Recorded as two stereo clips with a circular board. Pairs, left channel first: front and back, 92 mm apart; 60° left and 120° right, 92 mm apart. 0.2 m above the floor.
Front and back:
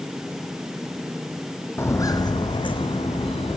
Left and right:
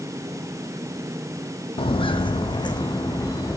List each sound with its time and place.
1.8 s footsteps: 65° left, 0.5 m; by 3.6 s 10° left, 1.4 m